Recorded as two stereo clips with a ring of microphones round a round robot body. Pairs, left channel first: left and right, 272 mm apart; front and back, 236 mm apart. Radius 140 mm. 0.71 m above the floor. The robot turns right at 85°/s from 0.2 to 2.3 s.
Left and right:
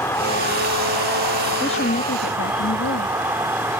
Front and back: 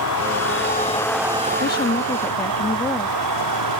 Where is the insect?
10° left; by 3.8 s 175° right.